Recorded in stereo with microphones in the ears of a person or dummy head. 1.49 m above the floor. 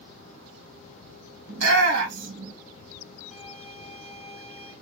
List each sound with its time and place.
1.5 s a shout: 80° right, 3 m
3.3 s a violin: 5° right (ahead or behind), 2 m